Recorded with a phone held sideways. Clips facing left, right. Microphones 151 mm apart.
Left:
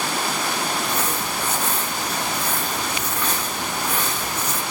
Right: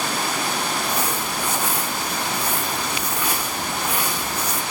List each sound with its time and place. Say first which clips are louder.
0.8 s crumpling: even; 10° right (ahead or behind), 1.9 m